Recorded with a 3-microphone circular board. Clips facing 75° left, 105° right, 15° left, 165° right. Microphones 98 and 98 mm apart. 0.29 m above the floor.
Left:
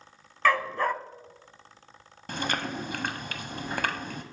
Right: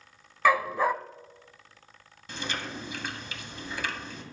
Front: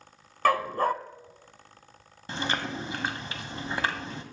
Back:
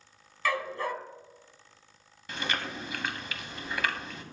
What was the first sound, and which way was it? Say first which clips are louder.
A dog barking: right 1 dB, front 7 dB; 25° right.